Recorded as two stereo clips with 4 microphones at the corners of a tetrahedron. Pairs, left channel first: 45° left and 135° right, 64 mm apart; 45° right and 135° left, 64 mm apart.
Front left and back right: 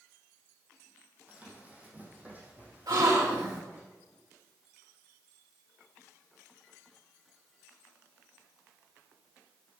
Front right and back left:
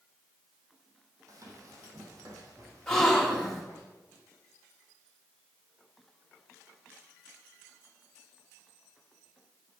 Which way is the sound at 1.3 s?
160° left.